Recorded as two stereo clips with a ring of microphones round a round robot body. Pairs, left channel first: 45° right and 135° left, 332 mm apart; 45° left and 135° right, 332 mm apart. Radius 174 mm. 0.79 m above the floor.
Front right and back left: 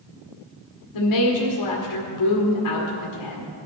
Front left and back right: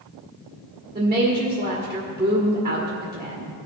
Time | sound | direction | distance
0.9 | a woman speaking | 60° right | 1.9 m